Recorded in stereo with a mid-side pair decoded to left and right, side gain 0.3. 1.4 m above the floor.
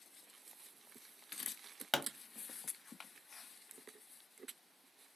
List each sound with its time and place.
1.9 s a pop: 25° left, 0.5 m